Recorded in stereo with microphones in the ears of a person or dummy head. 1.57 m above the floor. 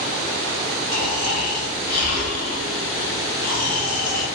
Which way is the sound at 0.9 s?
60° left (ahead or behind).